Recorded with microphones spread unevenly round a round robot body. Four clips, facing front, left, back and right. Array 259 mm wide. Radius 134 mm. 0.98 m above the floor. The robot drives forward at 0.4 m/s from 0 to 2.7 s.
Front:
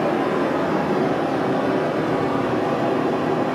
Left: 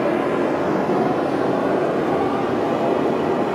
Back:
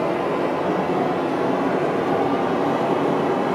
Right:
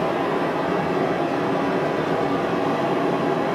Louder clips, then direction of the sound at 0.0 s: Left 3 dB, front 1 dB; 85° left.